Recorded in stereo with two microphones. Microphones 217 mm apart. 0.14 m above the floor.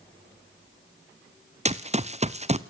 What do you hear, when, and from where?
1.6 s running footsteps: 30° right (ahead or behind), 1.0 m